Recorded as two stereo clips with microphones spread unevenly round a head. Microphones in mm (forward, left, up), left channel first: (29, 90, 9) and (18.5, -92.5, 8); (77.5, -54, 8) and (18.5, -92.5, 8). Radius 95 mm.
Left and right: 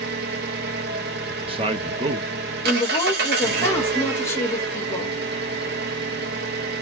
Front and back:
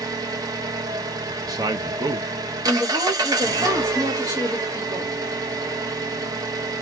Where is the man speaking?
150° right, 0.9 m.